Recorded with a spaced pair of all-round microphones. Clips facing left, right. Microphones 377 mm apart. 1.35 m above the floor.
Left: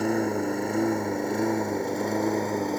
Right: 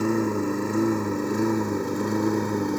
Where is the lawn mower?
15° right (ahead or behind); by 2.8 s 20° right (ahead or behind).